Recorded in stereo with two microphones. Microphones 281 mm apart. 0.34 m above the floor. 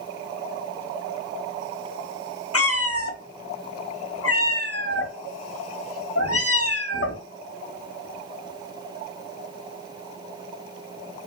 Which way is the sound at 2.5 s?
55° left (ahead or behind).